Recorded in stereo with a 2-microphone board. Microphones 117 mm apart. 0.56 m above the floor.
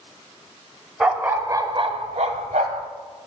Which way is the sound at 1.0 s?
5° right (ahead or behind).